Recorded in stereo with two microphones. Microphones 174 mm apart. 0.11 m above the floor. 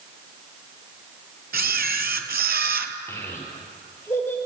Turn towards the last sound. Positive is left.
turn(degrees=15)  # may be behind; listen again after turning